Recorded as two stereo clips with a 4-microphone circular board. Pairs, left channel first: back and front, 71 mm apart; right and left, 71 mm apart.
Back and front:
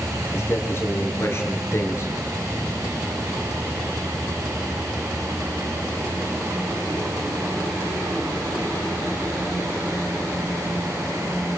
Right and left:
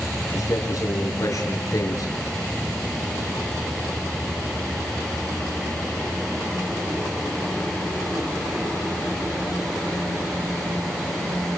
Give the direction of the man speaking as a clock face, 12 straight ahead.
4 o'clock.